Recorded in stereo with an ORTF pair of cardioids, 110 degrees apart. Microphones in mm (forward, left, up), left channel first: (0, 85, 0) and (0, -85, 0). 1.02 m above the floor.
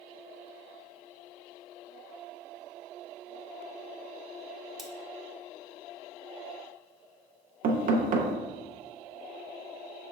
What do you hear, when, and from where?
4.8 s cutlery clinking: straight ahead, 0.7 m
7.6 s knocking: 55° right, 0.6 m